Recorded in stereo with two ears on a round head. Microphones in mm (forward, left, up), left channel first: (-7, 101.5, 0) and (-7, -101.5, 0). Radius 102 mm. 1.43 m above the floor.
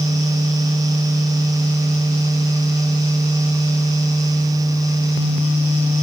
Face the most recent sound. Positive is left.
No sound to turn to.